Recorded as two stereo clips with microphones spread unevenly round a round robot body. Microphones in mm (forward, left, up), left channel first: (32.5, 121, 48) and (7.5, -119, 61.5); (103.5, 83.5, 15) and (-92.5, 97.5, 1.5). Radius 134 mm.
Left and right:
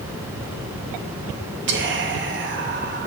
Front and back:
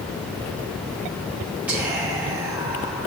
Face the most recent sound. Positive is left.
turn(degrees=-105)